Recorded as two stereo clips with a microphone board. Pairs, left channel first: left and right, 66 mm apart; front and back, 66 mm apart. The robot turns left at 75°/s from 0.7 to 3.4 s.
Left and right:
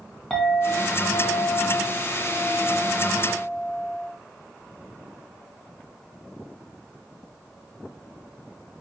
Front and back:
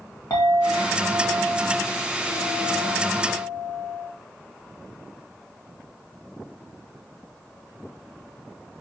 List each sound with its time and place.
0.3 s a clink: 10° left, 1.5 m; by 4.1 s 165° left, 1.5 m